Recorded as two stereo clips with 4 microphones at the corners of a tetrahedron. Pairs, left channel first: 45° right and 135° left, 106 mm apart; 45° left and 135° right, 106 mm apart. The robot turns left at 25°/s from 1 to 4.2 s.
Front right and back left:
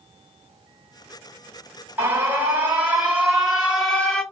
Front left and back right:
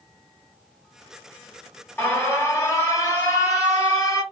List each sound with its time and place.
2.0 s an alarm: 90° left, 1.6 m; by 4.2 s 35° left, 1.6 m